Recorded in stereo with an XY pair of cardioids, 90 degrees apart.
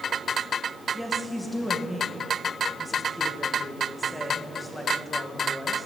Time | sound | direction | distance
0.9 | a woman speaking | 10° left | 2.5 m